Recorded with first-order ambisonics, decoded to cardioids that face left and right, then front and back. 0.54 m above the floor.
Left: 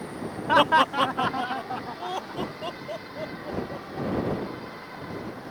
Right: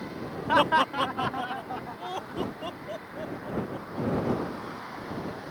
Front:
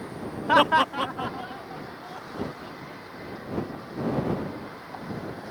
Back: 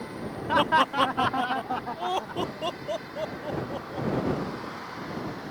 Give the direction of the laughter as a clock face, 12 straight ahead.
11 o'clock.